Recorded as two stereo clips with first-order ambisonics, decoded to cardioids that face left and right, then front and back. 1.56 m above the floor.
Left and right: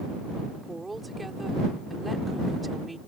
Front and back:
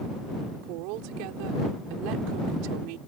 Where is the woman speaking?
170° right.